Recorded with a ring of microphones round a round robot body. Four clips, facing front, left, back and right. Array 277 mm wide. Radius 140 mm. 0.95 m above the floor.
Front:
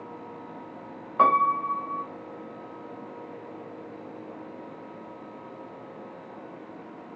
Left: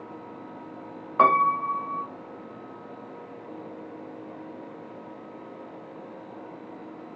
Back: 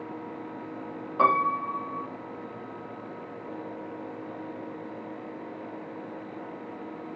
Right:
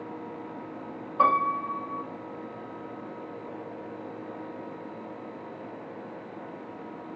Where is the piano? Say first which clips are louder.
Left 4 dB, front 2 dB; 75° left, 0.7 m.